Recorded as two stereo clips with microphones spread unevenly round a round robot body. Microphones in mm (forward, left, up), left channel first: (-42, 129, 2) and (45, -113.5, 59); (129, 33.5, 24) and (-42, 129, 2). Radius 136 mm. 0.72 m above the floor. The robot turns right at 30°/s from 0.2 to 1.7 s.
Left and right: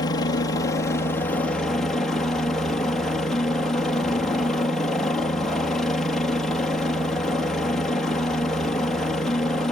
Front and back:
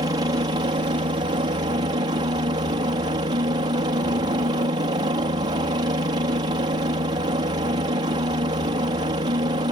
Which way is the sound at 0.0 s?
125° left.